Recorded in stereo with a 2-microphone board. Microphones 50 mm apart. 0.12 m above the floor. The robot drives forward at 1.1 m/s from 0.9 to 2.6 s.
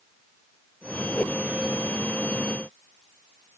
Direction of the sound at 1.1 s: 40° left (ahead or behind).